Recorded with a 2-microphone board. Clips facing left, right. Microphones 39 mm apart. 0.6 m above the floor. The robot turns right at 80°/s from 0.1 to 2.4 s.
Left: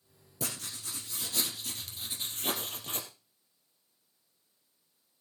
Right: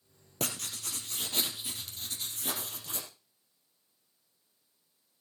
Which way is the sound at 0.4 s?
120° right.